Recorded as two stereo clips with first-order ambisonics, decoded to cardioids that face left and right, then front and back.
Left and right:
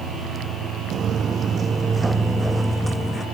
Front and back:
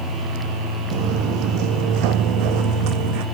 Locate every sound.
0.9 s footsteps: 150° right; by 3.2 s 175° left